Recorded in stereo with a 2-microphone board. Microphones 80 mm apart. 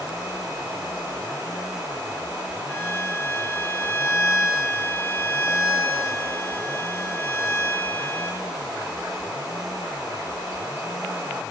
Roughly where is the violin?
Left.